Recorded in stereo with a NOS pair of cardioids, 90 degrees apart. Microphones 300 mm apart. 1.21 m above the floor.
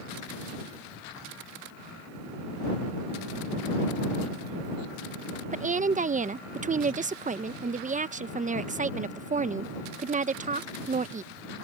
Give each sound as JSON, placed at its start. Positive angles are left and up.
{"t": 5.5, "sound": "a woman speaking", "azimuth_deg": -25}